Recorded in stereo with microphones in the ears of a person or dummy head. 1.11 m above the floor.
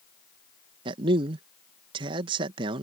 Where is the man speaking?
25° right (ahead or behind).